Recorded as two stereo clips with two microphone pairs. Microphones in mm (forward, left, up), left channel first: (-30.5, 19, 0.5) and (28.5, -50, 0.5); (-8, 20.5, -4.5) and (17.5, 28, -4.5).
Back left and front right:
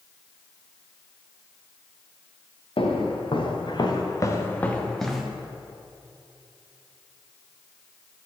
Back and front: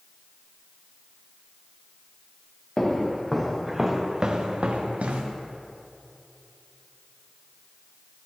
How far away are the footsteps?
About 1.9 m.